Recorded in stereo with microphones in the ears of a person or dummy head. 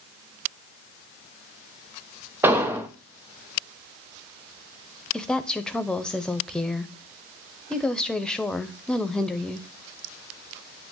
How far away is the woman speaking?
About 0.5 m.